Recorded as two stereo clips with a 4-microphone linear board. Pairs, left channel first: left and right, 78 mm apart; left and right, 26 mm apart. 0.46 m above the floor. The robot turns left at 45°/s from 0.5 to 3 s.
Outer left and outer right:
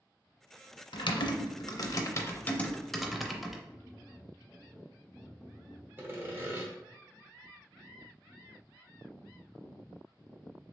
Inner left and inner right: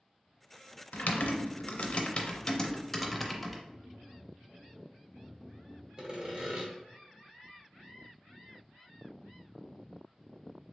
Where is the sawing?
30° right (ahead or behind), 0.8 m.